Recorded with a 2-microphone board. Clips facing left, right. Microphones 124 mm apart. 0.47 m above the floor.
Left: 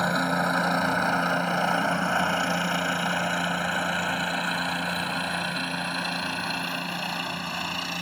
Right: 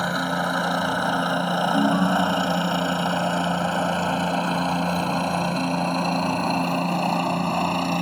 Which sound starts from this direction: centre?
A helicopter, at 0.0 s.